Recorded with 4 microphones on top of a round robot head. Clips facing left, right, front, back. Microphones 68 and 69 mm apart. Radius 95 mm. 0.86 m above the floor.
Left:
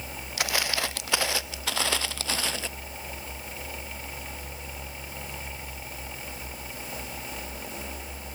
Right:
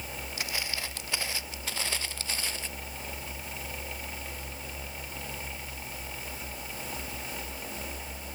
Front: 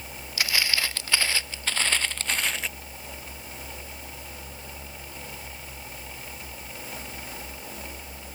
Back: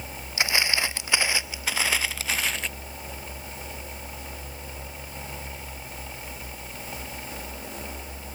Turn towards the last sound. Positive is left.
turn(degrees=85)